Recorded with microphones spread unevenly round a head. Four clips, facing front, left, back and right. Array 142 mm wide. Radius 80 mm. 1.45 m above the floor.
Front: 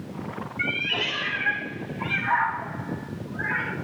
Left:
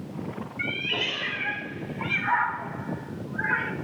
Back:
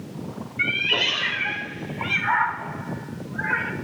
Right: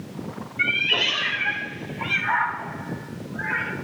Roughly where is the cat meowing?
Behind right.